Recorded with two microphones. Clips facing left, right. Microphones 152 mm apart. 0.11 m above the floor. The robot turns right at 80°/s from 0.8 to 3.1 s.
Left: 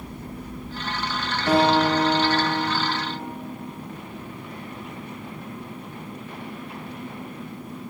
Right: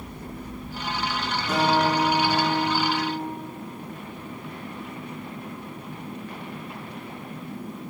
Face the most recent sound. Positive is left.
turn(degrees=-140)